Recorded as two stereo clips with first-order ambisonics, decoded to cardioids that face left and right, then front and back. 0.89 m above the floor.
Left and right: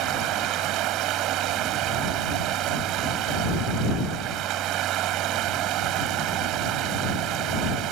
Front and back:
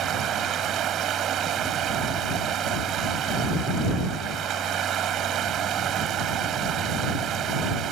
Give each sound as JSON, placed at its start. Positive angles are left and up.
{"t": 0.0, "sound": "running water", "azimuth_deg": -130}